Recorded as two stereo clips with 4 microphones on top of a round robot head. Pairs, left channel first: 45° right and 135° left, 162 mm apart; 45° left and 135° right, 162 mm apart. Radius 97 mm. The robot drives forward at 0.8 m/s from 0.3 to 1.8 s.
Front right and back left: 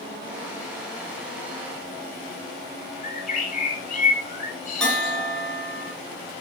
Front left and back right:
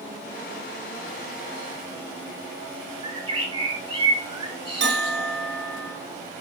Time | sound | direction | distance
3.0 | a bird | 80° right | 3.5 m
4.8 | a bell | 130° right | 3 m